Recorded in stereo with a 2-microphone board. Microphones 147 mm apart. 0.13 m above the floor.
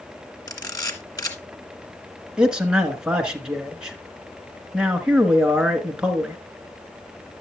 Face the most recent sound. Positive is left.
turn(degrees=-5)  # may be behind; listen again after turning